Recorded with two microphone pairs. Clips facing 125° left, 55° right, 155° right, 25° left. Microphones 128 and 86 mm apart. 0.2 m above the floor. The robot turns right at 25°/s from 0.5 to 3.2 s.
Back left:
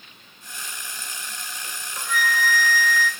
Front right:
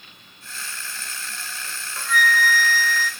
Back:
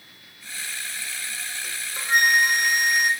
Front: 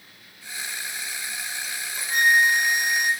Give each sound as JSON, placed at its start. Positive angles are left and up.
{"t": 1.6, "sound": "a flute", "azimuth_deg": -160, "distance_m": 1.9}